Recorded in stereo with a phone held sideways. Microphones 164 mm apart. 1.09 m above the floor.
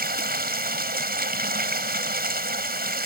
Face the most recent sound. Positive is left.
turn(degrees=-70)  # may be behind; listen again after turning